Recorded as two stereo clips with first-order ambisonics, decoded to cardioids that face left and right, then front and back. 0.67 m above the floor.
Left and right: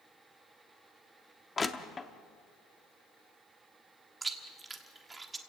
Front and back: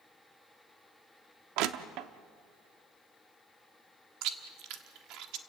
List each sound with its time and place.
1.6 s crushing: 165° left, 0.8 m
4.2 s chewing: 165° right, 1.3 m